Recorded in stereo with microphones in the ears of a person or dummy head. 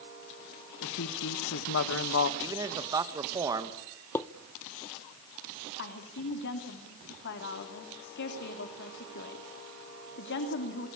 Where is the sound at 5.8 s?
65° left (ahead or behind), 3 m.